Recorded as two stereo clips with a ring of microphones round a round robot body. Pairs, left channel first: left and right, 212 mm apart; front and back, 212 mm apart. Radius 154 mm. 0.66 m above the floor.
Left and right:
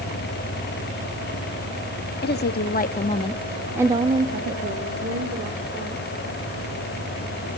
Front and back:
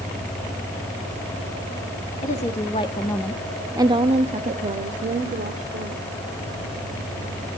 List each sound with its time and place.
2.2 s a woman speaking: 60° left, 1.9 m; by 6.0 s 130° right, 3 m